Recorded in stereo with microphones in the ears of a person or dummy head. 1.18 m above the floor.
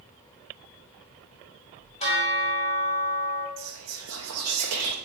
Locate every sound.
2.0 s a bell: 30° left (ahead or behind), 1.2 m
3.6 s whispering: 85° right, 0.5 m